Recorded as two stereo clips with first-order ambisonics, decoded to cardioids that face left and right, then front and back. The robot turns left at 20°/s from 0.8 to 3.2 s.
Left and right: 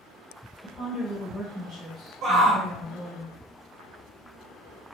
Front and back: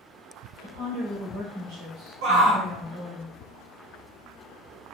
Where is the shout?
160° right, 1.4 m; by 2.7 s 165° right, 1.4 m.